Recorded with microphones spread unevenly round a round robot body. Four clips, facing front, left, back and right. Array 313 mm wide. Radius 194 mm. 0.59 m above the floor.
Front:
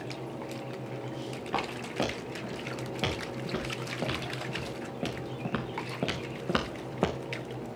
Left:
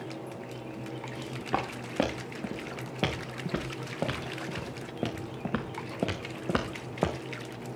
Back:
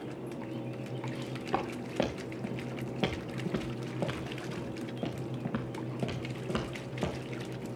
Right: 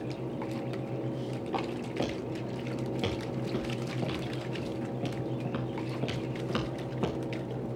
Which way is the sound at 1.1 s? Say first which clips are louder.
Left 1 dB, even; 90° left.